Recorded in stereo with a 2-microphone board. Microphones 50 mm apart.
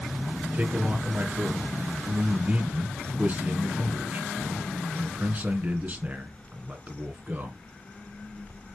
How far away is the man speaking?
About 2.5 m.